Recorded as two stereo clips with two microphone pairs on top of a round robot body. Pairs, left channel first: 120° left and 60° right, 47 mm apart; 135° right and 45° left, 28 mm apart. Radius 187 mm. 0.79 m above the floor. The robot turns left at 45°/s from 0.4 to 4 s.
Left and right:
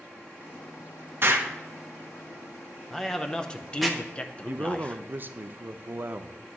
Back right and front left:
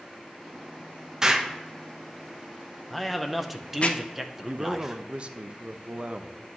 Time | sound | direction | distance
1.2 | an explosion | 35° right | 1.0 m
2.9 | a man speaking | 165° right | 0.7 m
4.5 | a man speaking | 20° right | 0.5 m